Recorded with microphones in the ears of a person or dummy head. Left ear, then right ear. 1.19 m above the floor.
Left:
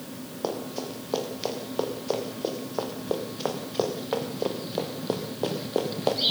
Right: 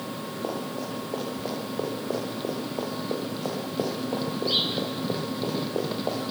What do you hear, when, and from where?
0.4 s running footsteps: 65° left (ahead or behind), 8.5 m; by 6.3 s 70° left (ahead or behind), 5.5 m